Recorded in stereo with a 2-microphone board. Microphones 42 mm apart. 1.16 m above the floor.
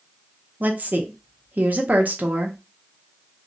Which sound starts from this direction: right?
A woman speaking, at 0.6 s.